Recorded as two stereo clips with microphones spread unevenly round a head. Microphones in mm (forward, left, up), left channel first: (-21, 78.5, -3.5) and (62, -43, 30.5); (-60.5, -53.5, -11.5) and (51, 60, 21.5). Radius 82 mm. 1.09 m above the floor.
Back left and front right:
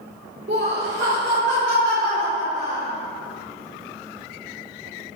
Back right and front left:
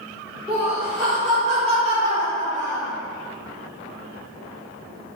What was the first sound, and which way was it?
Laughter, 40° right.